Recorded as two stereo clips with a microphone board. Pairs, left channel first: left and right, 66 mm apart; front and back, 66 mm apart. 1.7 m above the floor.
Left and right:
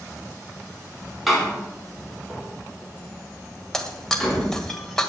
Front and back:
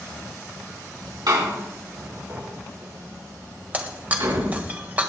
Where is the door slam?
Straight behind, 4.5 m.